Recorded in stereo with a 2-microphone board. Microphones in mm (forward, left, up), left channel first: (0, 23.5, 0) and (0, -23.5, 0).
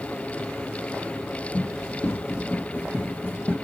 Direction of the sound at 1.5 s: 65° left (ahead or behind).